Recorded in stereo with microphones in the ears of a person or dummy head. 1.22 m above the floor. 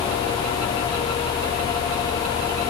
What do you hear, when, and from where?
Only background noise.